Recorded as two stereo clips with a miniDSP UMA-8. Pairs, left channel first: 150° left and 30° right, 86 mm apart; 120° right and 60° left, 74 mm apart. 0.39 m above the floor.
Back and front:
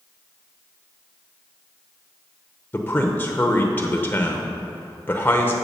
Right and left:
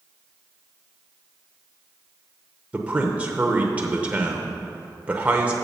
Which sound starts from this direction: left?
A man speaking, at 2.7 s.